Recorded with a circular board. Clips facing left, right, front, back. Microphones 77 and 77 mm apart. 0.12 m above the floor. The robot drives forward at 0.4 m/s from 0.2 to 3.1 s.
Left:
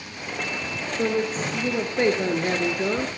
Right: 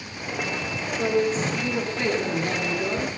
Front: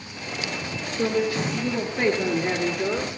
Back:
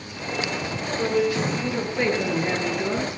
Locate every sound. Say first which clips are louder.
1.0 s a woman speaking: right 2 dB, back 1 dB; 60° left, 1.9 m; by 3.1 s 90° left, 1.7 m